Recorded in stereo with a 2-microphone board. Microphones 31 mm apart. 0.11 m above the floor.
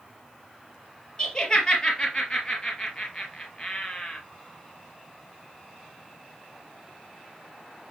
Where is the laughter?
25° left (ahead or behind), 2.5 m.